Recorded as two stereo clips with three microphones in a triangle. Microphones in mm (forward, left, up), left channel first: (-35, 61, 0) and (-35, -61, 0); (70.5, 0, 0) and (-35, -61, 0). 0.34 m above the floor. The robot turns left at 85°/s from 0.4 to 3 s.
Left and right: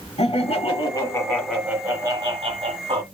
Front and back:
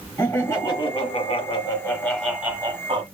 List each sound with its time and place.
0.2 s laughter: 100° left, 1.9 m; by 3.0 s 120° right, 1.9 m